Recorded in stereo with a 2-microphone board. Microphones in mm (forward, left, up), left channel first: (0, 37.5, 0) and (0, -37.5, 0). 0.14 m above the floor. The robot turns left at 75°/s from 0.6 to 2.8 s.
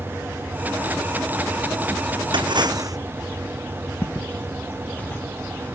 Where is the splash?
95° right; by 3.0 s 130° right.